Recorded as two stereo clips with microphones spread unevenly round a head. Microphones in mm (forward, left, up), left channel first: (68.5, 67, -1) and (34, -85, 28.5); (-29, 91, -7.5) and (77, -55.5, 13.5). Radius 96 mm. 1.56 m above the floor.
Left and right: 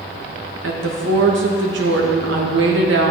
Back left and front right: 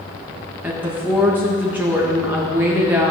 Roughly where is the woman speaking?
Behind right.